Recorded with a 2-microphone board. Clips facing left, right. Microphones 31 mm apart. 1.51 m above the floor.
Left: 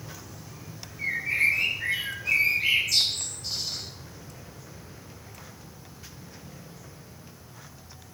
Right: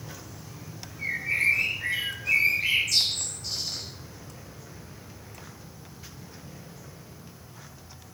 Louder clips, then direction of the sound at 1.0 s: Left 1 dB; 15° left (ahead or behind).